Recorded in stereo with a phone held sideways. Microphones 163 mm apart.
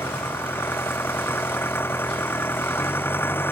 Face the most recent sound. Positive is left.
turn(degrees=15)  # may be behind; listen again after turning